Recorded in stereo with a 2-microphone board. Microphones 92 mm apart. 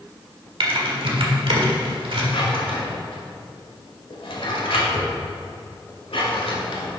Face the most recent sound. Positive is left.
turn(degrees=80)